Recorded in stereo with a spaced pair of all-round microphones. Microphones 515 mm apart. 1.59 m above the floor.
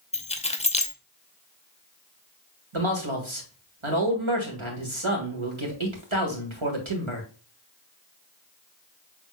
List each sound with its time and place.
0.1 s keys jangling: 15° left (ahead or behind), 0.6 m
2.7 s a man speaking: 75° right (ahead or behind), 1.8 m